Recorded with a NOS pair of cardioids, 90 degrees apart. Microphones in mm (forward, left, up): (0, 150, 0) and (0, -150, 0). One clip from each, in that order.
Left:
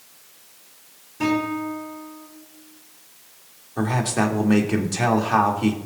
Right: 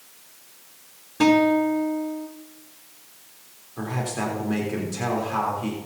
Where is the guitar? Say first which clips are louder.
Right 6 dB; 60° right, 3.5 m.